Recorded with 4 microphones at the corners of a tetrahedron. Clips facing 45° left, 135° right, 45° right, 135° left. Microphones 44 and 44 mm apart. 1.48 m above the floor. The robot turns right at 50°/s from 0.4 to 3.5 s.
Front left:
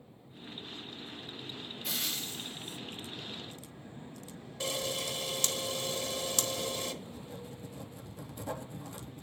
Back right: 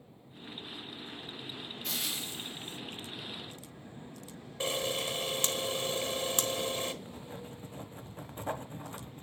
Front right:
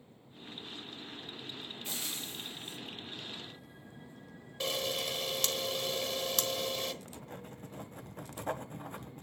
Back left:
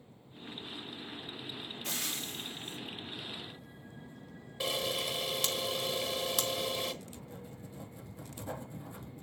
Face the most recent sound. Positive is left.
turn(degrees=-80)